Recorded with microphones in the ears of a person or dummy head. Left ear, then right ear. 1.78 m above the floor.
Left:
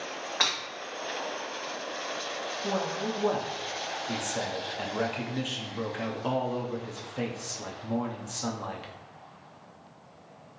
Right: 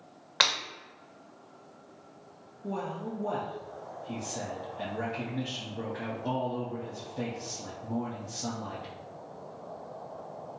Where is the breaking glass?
35° right (ahead or behind), 1.6 m.